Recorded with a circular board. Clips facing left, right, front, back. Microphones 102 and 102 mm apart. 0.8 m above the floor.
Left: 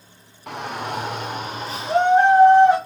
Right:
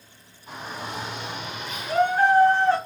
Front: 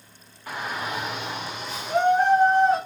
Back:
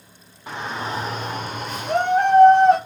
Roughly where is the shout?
Left.